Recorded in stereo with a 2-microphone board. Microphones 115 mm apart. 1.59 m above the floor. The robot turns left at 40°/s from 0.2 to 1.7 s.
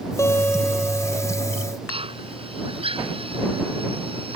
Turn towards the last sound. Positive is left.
turn(degrees=-50)  # may be behind; listen again after turning